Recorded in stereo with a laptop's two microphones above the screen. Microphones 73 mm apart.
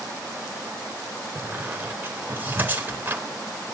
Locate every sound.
1.4 s a squeak: 30° right (ahead or behind), 3 m